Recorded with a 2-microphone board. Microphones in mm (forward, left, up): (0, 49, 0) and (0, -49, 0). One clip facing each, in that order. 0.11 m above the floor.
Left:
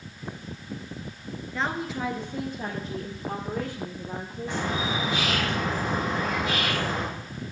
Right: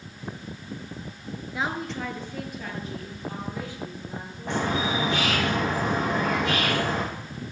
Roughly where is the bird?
Right.